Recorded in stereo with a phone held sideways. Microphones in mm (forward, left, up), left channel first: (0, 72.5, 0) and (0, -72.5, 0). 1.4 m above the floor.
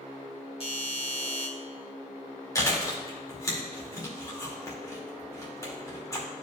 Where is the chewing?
25° left (ahead or behind), 2 m.